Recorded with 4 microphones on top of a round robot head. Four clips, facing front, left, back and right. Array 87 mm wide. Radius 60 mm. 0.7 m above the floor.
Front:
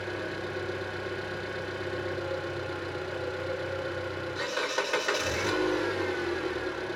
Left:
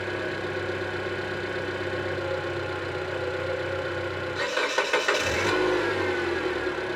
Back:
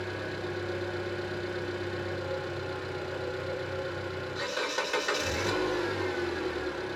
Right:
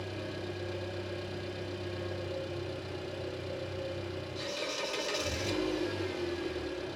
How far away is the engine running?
About 3 m.